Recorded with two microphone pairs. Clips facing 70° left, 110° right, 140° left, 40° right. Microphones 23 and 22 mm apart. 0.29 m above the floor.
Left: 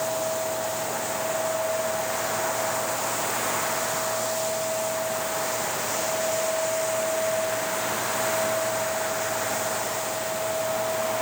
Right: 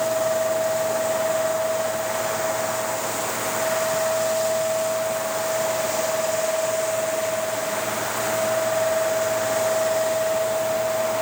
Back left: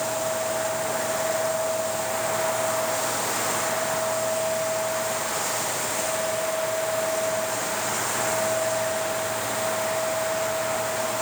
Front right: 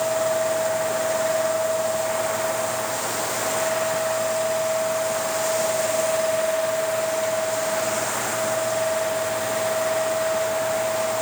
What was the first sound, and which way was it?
Only background noise.